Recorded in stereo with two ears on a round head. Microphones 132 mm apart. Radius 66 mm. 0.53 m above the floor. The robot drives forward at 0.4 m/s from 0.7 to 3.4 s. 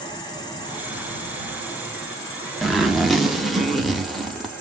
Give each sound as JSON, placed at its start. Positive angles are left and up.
{"t": 0.0, "sound": "an insect", "side_deg": 30, "distance_m": 1.7}
{"t": 2.6, "sound": "a zipper", "side_deg": 0, "distance_m": 0.8}